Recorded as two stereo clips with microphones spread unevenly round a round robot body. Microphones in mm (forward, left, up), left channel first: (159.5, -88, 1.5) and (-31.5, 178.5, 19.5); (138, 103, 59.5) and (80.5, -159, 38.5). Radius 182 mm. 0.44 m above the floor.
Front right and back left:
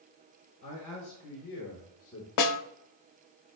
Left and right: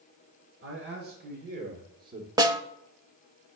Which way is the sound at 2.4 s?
25° right.